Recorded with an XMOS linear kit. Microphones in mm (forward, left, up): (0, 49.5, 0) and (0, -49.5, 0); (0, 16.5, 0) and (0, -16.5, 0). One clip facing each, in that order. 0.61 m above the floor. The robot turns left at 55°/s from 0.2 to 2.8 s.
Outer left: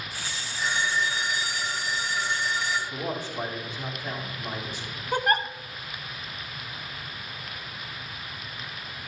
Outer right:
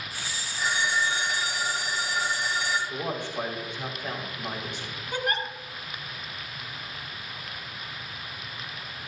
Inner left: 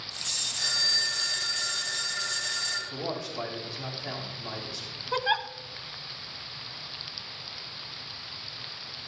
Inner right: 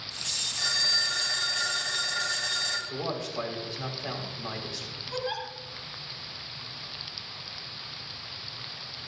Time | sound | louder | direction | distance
0.6 | a phone ringing | even, inner right 1 dB | straight ahead | 3 m
2.9 | a man speaking | even, inner right 1 dB | 70° right (ahead or behind) | 4 m
5.1 | a giggle | outer left 5 dB, inner left 6 dB | 50° left (ahead or behind) | 1.1 m